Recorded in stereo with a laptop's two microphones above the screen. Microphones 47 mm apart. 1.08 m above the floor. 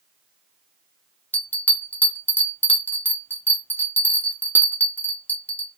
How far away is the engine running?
No engine running in this recording.